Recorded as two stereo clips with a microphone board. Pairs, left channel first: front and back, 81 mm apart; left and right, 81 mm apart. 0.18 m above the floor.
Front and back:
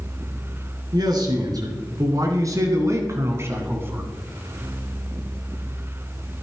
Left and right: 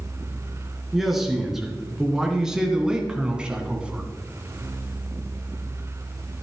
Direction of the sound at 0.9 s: 175° right.